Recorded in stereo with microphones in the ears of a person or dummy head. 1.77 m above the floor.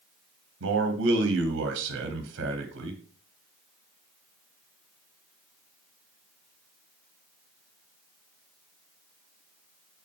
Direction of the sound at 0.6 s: 75° right (ahead or behind).